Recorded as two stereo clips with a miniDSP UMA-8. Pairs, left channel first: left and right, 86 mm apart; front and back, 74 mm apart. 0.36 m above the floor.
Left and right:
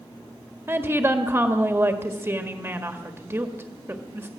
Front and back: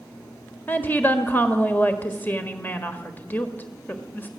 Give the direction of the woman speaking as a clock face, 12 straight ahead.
2 o'clock.